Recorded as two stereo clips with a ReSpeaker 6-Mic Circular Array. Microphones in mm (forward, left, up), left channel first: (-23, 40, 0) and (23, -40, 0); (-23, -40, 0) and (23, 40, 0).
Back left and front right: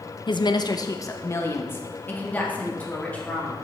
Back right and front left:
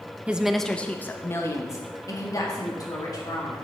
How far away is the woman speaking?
About 0.6 m.